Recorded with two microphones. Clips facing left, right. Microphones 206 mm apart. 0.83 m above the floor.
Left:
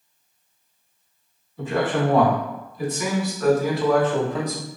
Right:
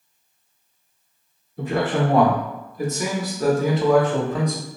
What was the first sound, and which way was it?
A man speaking, 60° right (ahead or behind).